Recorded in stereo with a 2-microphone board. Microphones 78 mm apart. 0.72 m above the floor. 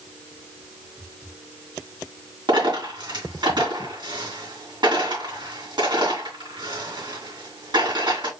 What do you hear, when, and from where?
2.5 s a dropped coin: 80° right, 3 m